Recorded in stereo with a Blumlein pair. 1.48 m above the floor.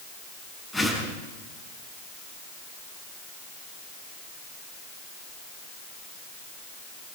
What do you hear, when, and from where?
0.7 s a whoosh: 5° right, 8 m